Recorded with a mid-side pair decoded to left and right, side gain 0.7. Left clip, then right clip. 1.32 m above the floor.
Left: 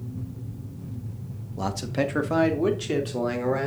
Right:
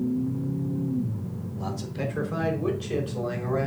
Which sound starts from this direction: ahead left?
A man speaking, at 1.6 s.